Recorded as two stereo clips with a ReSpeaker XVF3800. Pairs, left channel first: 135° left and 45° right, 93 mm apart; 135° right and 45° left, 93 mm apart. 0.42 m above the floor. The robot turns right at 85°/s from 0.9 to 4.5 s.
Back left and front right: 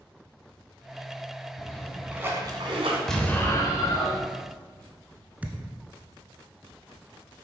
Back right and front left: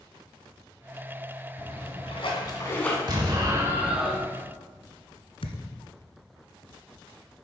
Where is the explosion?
50° left, 1.8 m; by 4.3 s 150° left, 1.8 m.